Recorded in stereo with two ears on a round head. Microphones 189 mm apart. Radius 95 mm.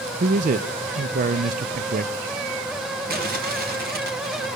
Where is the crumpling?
45° right (ahead or behind), 2.5 m.